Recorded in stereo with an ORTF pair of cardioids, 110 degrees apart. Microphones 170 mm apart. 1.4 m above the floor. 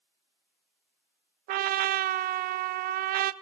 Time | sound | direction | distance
1.5 | a trumpet | 65° right | 0.5 m